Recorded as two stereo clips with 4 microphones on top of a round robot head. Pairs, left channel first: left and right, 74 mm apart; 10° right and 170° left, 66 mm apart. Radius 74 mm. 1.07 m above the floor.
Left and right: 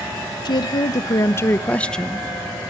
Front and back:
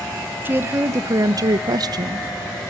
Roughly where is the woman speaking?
Left.